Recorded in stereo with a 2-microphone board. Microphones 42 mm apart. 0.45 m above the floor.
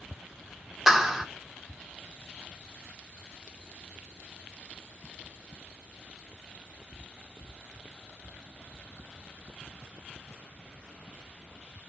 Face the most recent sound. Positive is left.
turn(degrees=-10)  # may be behind; listen again after turning